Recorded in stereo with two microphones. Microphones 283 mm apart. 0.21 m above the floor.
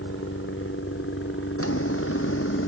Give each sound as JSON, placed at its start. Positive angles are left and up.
{"t": 0.0, "sound": "a helicopter", "side_deg": 45}
{"t": 1.6, "sound": "a drawer", "side_deg": 50}